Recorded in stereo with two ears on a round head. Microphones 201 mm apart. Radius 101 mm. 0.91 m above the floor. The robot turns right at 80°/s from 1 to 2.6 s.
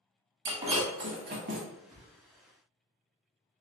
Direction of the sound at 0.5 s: 25° right (ahead or behind).